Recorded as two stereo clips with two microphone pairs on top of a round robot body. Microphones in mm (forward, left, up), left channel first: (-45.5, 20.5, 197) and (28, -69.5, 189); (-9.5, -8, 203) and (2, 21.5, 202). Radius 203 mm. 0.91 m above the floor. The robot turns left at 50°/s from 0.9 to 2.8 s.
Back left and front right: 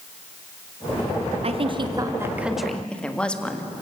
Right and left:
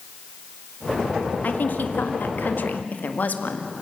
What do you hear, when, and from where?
1.4 s a woman speaking: 80° right, 1.9 m; by 3.7 s 145° right, 1.9 m